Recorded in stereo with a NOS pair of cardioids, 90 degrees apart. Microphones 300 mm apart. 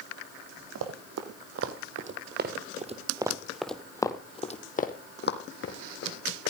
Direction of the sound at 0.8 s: 65° right.